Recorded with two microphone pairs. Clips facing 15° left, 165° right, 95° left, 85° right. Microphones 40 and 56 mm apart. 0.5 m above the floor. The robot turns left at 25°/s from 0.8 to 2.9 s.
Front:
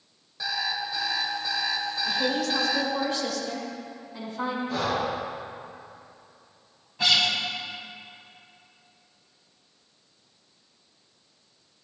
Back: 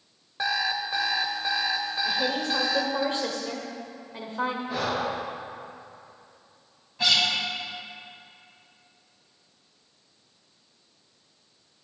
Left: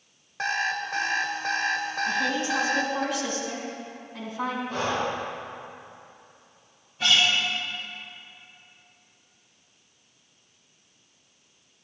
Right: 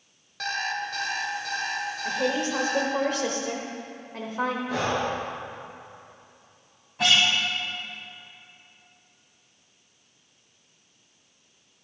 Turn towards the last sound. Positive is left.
turn(degrees=-75)